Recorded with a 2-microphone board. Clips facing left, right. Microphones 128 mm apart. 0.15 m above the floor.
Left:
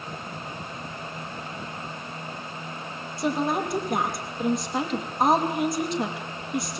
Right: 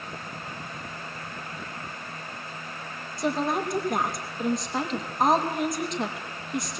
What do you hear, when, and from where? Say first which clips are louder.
3.2 s a woman speaking: left 1 dB; centre (ahead or behind), 5 m